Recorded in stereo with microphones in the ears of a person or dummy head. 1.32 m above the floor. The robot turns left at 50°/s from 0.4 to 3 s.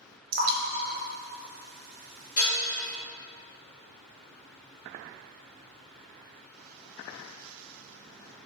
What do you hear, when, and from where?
0.3 s dripping: 50° right (ahead or behind), 0.6 m; by 2.2 s 40° right (ahead or behind), 0.6 m
2.4 s dishes clattering: 50° left (ahead or behind), 1.1 m; by 2.6 s 55° left (ahead or behind), 1.1 m